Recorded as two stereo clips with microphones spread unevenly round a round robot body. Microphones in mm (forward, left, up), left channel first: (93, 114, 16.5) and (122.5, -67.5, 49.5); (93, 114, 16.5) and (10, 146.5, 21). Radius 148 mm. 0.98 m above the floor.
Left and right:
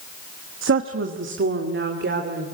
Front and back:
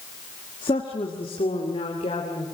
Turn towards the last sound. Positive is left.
turn(degrees=-65)